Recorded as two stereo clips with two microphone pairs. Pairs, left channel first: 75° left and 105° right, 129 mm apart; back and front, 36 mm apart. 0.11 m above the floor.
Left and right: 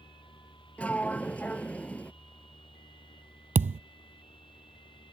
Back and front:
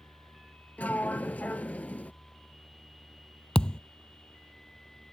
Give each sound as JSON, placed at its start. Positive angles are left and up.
{"t": 0.8, "sound": "a sliding door", "azimuth_deg": 150}
{"t": 3.5, "sound": "a thud", "azimuth_deg": -115}